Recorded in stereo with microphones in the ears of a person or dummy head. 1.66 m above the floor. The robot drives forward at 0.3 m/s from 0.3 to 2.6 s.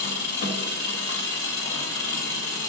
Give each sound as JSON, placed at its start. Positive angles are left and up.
{"t": 0.0, "sound": "an engine running", "side_deg": 60, "distance_m": 1.2}